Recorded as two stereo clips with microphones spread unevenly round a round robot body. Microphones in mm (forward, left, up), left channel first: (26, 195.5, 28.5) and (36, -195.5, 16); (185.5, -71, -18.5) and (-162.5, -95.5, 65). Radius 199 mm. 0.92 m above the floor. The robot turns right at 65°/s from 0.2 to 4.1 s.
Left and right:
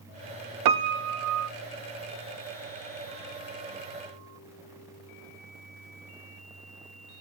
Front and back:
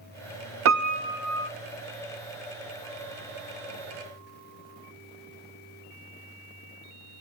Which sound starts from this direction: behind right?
A piano, at 0.7 s.